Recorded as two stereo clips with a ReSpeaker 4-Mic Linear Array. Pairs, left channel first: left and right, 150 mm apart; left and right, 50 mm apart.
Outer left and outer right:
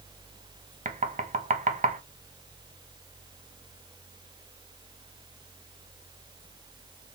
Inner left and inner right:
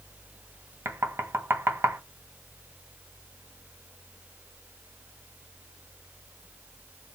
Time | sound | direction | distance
0.8 | knocking | 55° right (ahead or behind) | 0.6 m